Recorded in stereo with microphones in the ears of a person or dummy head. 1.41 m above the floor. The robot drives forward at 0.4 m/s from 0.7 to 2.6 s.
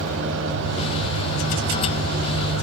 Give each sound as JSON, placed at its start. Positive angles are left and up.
{"t": 0.0, "sound": "an engine running", "side_deg": -70, "distance_m": 4.5}